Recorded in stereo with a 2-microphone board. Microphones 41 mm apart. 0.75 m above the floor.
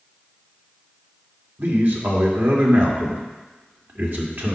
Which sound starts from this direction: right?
A man speaking, at 1.6 s.